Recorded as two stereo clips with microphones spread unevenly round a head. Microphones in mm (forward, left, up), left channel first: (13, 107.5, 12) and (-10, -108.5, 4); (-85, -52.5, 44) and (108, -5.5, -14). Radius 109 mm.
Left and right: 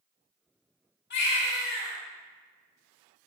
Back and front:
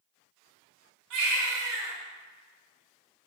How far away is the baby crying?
About 5 m.